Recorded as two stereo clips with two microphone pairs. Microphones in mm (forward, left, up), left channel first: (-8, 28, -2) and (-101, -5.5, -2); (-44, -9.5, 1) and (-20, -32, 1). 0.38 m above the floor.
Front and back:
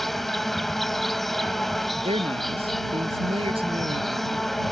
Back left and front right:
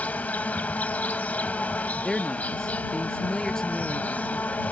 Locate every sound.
0.0 s an insect: 110° left
2.0 s a man speaking: 150° right